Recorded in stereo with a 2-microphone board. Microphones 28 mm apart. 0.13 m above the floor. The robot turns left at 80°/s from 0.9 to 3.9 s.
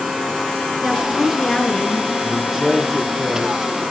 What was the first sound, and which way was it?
A woman speaking, 170° right.